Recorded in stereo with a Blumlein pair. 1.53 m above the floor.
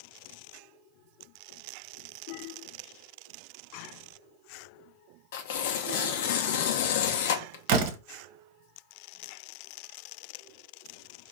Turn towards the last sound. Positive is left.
turn(degrees=-50)